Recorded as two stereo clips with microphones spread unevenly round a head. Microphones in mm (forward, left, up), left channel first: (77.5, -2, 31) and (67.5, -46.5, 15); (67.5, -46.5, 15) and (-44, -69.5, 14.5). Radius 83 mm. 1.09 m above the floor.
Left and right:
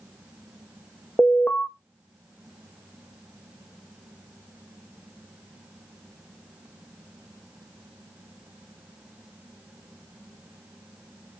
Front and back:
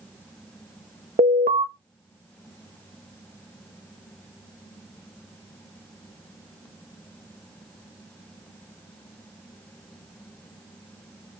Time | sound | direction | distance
1.2 | an alarm | 150° left | 1.2 m